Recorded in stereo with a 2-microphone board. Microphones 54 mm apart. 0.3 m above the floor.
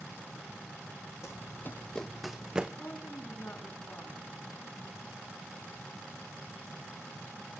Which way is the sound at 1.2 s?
65° left (ahead or behind).